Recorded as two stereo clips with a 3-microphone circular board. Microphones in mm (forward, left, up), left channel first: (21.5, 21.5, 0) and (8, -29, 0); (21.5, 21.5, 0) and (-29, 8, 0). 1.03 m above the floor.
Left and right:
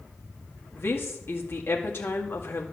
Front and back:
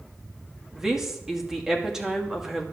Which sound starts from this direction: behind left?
A woman speaking, at 0.8 s.